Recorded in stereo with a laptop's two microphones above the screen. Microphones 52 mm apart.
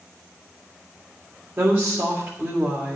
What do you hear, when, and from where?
1.6 s a woman speaking: 35° right (ahead or behind), 3 m